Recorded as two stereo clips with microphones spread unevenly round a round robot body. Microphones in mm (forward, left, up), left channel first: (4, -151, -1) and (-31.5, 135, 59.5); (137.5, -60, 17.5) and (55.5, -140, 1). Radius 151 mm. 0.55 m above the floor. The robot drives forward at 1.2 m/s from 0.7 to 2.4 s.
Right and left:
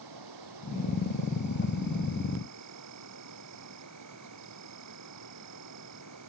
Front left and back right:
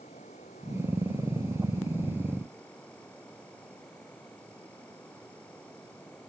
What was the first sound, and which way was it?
An insect, 110° left.